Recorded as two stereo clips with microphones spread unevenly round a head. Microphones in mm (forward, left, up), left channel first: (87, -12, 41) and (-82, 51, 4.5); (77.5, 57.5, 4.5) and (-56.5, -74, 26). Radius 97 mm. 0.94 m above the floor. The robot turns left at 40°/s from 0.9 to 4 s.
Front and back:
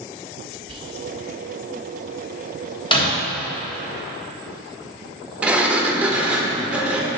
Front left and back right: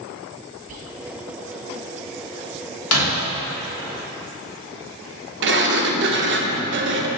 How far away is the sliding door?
About 0.6 m.